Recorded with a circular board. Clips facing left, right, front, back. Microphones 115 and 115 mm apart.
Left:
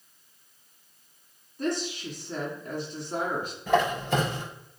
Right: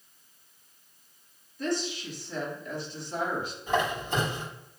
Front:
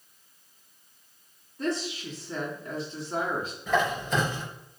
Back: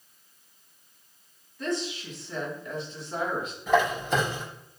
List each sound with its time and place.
1.6 s a woman speaking: 55° left, 2.5 m
3.7 s a squeak: 100° left, 3.5 m